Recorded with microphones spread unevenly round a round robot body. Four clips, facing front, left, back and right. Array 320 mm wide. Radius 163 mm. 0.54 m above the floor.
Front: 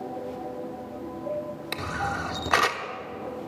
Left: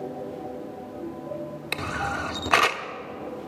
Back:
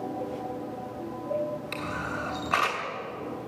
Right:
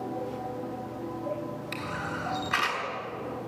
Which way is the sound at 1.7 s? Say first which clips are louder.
Left 8 dB, front 3 dB; 40° left.